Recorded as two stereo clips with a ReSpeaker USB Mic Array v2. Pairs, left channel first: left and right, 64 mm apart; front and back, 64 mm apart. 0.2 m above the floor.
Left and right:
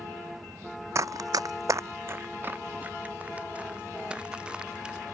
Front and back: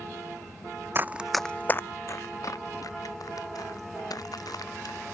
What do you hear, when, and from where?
0.9 s running footsteps: 125° right; by 5.2 s 15° right